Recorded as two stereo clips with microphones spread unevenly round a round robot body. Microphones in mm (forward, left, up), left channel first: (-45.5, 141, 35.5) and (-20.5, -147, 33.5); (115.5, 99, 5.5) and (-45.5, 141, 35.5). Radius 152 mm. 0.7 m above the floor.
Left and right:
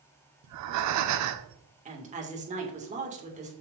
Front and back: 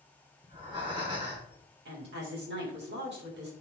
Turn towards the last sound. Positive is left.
turn(degrees=-150)